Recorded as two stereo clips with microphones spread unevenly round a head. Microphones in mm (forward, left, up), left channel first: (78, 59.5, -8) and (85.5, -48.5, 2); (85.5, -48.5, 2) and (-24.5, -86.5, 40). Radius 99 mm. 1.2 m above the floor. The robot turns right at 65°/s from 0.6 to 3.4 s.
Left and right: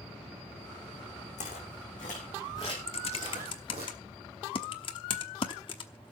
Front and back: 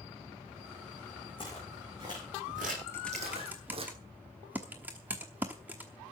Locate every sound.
1.4 s footsteps: 90° left, 6 m; by 3.9 s 135° right, 4.5 m
2.9 s typing on a keyboard: 105° left, 0.9 m; by 6.1 s 140° left, 0.9 m